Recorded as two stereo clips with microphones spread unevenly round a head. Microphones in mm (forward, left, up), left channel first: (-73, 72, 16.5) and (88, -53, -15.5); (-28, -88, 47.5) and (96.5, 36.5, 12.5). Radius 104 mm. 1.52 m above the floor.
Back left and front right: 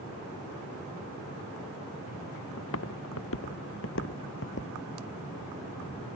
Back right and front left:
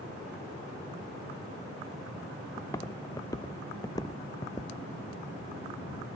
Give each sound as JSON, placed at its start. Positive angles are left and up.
{"t": 2.6, "sound": "footsteps", "azimuth_deg": 150}